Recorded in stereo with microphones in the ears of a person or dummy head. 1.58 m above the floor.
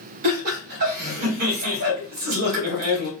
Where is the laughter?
45° right (ahead or behind), 1.3 m.